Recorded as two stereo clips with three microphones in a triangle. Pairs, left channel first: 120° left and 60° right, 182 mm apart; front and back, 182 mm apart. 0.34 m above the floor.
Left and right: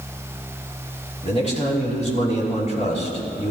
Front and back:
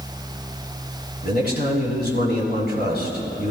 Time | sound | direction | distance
1.2 | a man speaking | 165° left | 4 m